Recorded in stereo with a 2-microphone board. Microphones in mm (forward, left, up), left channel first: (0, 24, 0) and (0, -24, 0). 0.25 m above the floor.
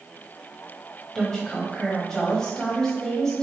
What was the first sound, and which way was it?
A woman speaking, 15° left (ahead or behind).